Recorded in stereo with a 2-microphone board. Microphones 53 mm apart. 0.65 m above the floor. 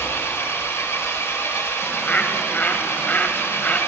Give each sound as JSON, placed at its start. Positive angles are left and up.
{"t": 0.0, "sound": "an engine running", "side_deg": 55, "distance_m": 1.2}
{"t": 1.8, "sound": "a bird", "side_deg": 30, "distance_m": 0.5}